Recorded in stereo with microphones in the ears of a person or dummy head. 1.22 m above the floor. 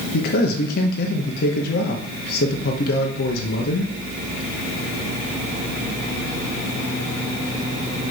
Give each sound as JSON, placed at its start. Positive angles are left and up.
{"t": 0.1, "sound": "a man speaking", "side_deg": 60, "distance_m": 0.8}